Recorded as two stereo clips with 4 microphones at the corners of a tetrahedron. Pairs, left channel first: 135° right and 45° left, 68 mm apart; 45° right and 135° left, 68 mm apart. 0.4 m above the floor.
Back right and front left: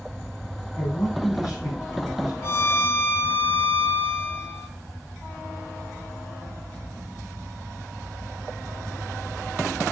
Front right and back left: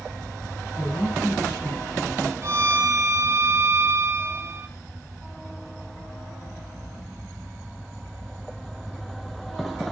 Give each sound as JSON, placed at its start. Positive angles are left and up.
{"t": 0.8, "sound": "a man speaking", "azimuth_deg": -125, "distance_m": 7.5}
{"t": 2.4, "sound": "a violin", "azimuth_deg": 175, "distance_m": 0.8}